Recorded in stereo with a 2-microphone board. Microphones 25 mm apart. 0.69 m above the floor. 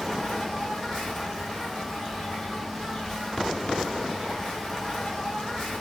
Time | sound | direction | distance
0.0 | an insect | 25° left (ahead or behind) | 1.8 m